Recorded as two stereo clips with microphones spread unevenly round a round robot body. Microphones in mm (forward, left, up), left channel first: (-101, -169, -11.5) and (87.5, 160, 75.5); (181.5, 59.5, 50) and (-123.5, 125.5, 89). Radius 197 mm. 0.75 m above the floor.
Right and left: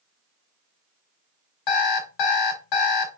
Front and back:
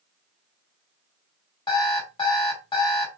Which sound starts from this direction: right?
An alarm clock, at 1.7 s.